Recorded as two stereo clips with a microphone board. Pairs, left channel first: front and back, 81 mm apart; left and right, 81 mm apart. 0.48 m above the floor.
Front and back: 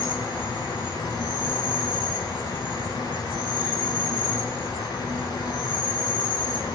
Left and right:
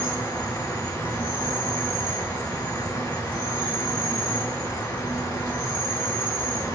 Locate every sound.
0.0 s an insect: 30° left, 3.5 m